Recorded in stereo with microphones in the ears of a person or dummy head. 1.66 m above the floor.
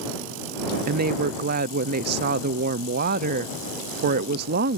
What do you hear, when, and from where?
0.9 s a woman speaking: 50° right (ahead or behind)